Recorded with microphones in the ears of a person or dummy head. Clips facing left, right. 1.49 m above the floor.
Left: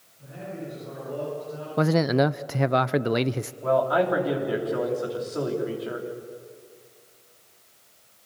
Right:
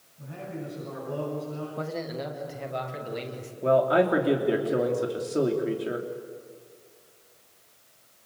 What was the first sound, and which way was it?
A man speaking, 45° right (ahead or behind).